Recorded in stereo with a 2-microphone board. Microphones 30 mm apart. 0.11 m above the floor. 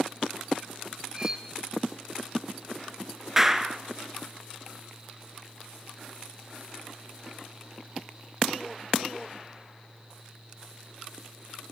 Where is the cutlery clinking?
20° right (ahead or behind), 1.1 m.